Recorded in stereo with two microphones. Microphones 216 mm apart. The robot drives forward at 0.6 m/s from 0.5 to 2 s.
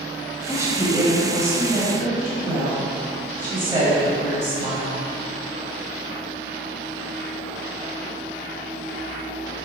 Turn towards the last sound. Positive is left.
turn(degrees=-15)  # may be behind; listen again after turning